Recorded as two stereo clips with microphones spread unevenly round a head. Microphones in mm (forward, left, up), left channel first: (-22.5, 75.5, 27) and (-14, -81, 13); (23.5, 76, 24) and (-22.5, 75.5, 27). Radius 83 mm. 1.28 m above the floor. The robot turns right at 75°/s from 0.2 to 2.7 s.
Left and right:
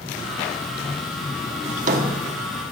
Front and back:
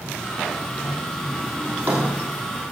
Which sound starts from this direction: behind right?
A drawer, at 1.6 s.